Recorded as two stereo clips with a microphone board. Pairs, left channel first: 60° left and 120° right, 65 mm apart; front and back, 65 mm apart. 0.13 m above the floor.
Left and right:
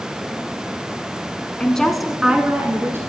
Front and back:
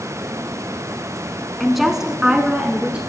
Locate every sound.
1.6 s a woman speaking: 90° left, 1.0 m; by 3.0 s 120° right, 1.3 m